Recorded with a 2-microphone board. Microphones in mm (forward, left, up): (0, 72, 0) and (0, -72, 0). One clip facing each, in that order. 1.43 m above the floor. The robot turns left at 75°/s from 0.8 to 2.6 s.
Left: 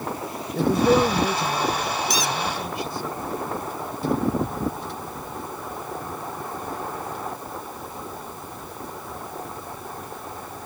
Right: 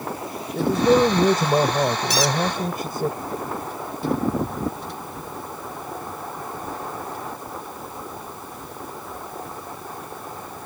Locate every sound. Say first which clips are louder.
0.6 s a man speaking: right 1 dB; straight ahead; by 3.1 s 135° right
2.1 s a squeak: right 4 dB; 65° right (ahead or behind); by 2.4 s 75° right (ahead or behind)